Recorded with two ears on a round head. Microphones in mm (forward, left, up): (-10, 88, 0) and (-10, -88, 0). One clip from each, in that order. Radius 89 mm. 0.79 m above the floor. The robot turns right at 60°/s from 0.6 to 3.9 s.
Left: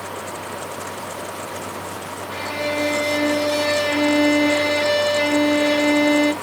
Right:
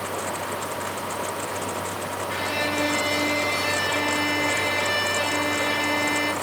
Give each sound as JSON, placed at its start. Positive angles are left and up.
{"t": 2.3, "sound": "a violin", "azimuth_deg": -50, "distance_m": 4.5}